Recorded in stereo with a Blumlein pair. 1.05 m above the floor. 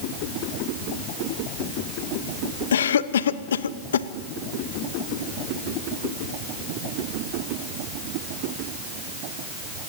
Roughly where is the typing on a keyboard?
I don't hear typing on a keyboard.